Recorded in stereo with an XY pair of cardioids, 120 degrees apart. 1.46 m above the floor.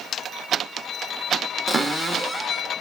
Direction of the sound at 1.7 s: 15° right.